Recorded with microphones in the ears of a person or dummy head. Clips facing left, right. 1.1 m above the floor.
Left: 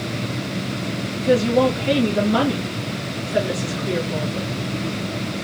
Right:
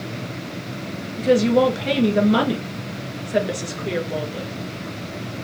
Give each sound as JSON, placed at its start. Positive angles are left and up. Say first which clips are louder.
{"t": 1.2, "sound": "a woman speaking", "louder": "right 1 dB", "side_deg": -35, "distance_m": 1.5}